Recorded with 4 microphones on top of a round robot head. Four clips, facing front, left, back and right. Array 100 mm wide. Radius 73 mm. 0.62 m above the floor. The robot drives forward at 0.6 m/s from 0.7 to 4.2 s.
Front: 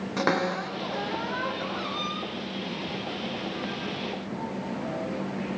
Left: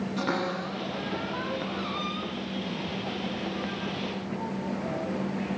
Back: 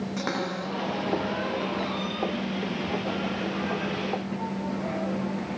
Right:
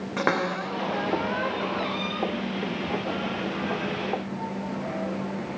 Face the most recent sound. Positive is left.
turn(degrees=-100)